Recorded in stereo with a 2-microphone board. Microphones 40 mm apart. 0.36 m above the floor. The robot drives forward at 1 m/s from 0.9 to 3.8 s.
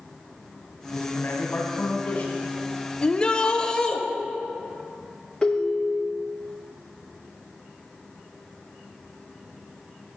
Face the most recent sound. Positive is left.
turn(degrees=15)  # may be behind; listen again after turning